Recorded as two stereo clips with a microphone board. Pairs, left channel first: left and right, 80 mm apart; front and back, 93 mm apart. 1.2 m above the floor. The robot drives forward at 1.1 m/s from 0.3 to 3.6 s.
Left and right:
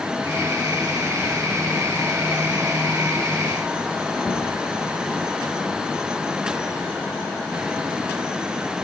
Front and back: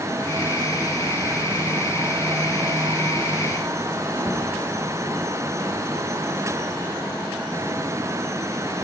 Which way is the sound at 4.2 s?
160° left.